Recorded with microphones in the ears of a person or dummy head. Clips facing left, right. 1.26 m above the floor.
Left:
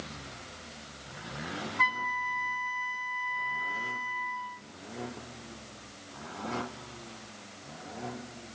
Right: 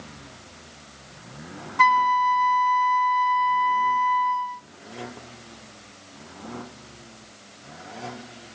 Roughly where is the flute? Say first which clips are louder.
Right 14 dB; right.